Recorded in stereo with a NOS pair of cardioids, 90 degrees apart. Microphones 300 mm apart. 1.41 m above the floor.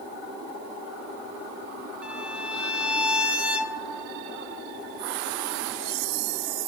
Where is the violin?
5° right, 1.1 m.